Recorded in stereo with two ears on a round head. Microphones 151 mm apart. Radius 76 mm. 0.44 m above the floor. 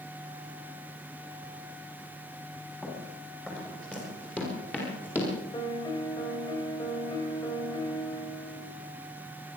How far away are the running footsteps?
About 9 m.